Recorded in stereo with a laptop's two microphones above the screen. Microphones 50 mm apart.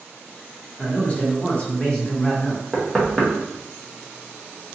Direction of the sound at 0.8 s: 25° left (ahead or behind).